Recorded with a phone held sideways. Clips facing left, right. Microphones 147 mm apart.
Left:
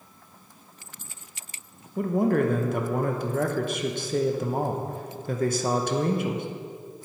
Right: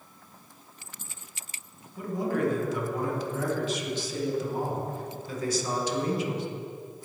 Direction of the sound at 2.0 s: 55° left (ahead or behind).